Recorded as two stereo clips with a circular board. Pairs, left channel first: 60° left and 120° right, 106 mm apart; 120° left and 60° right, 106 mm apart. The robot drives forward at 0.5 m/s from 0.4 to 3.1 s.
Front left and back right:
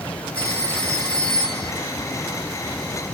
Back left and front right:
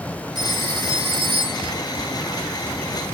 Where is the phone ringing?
15° right, 1.7 m; by 1.7 s 25° right, 1.1 m.